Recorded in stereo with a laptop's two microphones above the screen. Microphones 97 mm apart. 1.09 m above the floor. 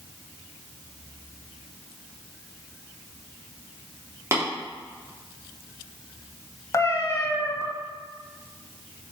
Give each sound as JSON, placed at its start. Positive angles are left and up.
{"t": 4.3, "sound": "tapping", "side_deg": -30, "distance_m": 3.0}
{"t": 6.7, "sound": "a cat meowing", "side_deg": 35, "distance_m": 1.4}